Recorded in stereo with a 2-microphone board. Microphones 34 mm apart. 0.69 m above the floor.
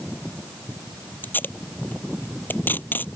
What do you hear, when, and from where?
1.2 s tape being pulled: 80° left